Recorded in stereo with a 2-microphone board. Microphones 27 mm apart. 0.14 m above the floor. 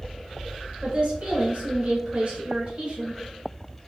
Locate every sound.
0.8 s a woman speaking: 40° right (ahead or behind), 1.4 m